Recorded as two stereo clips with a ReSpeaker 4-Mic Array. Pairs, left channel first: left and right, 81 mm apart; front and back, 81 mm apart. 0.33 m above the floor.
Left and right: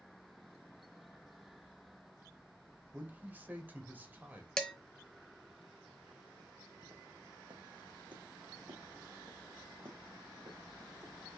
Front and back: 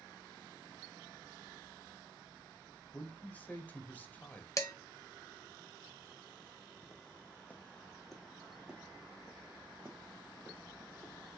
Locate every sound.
2.9 s a man speaking: 50° right, 1.1 m
4.6 s dishes clattering: 10° left, 0.9 m
6.8 s footsteps: 50° right, 1.1 m; by 11.1 s 125° right, 2.5 m